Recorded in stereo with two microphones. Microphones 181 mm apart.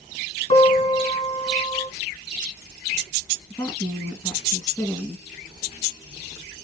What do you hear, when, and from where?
0.5 s a piano: 40° left (ahead or behind), 2.5 m
3.5 s a woman speaking: 20° left (ahead or behind), 1.6 m